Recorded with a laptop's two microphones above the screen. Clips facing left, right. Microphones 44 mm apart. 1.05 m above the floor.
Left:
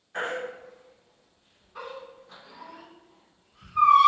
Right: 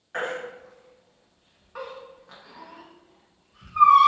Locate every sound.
0.1 s a baby crying: 75° right (ahead or behind), 0.8 m